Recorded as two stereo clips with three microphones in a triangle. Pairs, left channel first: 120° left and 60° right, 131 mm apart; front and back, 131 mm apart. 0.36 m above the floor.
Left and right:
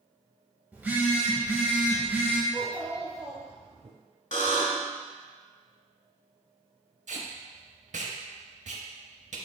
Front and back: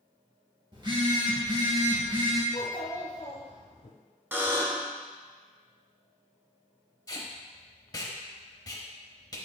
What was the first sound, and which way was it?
A phone buzzing, 135° right.